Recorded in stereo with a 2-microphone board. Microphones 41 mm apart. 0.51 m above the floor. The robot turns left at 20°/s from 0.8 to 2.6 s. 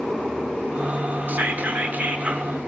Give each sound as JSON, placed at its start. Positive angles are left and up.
{"t": 1.3, "sound": "whispering", "side_deg": -45, "distance_m": 1.1}